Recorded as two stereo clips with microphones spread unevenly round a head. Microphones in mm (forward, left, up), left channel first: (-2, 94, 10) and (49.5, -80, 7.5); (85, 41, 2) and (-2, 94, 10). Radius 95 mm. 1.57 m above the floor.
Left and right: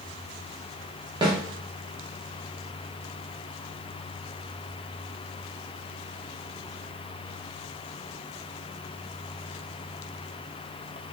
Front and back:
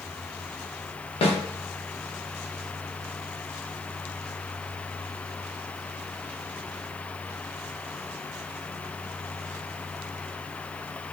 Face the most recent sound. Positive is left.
turn(degrees=-5)